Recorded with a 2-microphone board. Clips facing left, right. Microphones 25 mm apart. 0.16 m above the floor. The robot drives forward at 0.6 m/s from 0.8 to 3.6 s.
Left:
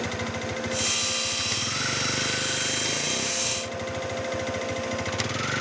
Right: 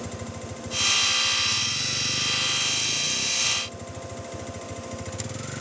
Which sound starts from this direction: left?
A vehicle, at 0.0 s.